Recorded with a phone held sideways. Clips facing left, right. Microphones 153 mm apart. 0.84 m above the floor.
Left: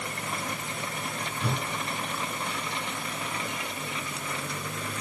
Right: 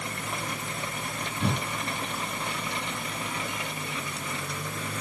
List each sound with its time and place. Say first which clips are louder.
1.4 s a whoosh: right 3 dB; 20° right (ahead or behind), 2 m